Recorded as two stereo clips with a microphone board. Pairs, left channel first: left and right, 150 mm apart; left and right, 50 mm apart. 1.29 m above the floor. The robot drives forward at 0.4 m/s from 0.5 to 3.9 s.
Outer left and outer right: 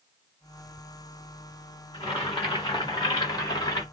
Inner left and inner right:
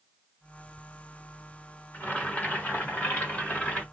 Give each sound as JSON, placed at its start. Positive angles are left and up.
{"t": 1.9, "sound": "boiling", "side_deg": 35, "distance_m": 1.1}